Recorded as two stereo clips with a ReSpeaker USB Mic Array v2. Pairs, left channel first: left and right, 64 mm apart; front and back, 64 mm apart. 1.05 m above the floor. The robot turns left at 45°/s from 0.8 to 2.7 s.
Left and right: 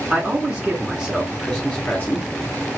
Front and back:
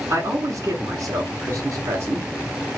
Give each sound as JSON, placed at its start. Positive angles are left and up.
{"t": 0.1, "sound": "a man speaking", "azimuth_deg": -160, "distance_m": 1.0}